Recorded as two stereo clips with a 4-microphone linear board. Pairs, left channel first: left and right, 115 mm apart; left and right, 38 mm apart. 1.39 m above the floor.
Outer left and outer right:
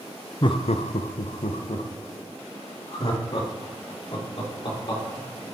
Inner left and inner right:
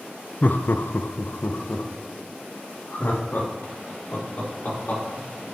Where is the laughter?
40° left (ahead or behind), 0.6 m; by 5.5 s 45° left (ahead or behind), 4.5 m.